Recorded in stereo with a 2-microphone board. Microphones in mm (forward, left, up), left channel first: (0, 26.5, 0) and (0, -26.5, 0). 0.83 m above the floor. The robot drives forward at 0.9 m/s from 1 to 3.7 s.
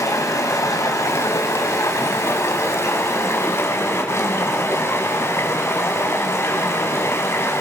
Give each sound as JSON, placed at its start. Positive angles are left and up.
{"t": 0.0, "sound": "running water", "side_deg": 75, "distance_m": 5.0}